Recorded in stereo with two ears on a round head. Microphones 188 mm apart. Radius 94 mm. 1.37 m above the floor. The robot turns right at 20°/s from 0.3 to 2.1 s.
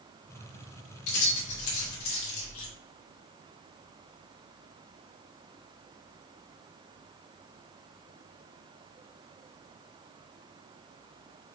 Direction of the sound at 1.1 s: 80° left.